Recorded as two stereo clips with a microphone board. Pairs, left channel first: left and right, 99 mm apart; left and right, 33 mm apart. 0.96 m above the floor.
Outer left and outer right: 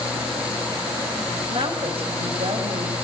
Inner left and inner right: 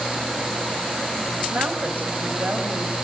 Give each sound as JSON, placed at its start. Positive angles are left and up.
{"t": 1.5, "sound": "a woman speaking", "side_deg": -60, "distance_m": 6.5}